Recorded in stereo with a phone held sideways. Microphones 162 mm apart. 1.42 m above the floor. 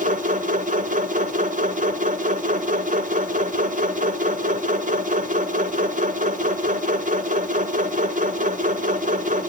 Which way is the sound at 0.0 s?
60° right (ahead or behind).